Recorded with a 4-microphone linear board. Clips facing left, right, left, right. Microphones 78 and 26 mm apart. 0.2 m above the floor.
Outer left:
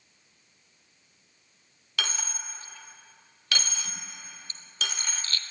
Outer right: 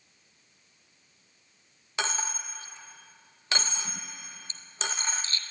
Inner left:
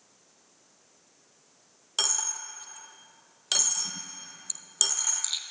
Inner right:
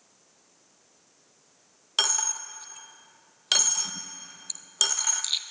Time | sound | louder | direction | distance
2.0 | a dropped coin | outer right 3 dB, inner right 4 dB | 25° right (ahead or behind) | 0.8 m